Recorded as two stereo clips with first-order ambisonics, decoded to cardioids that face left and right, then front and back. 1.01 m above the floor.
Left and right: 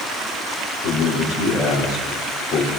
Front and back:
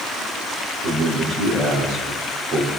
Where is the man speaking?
125° left, 2.5 m.